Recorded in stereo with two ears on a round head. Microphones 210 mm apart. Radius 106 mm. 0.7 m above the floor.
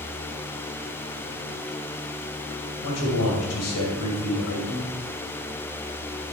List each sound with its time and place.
2.8 s a man speaking: 70° left (ahead or behind), 3 m